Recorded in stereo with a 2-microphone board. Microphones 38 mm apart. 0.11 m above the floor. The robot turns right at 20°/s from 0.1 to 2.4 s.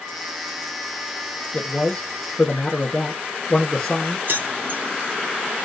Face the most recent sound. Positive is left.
turn(degrees=-55)  # may be behind; listen again after turning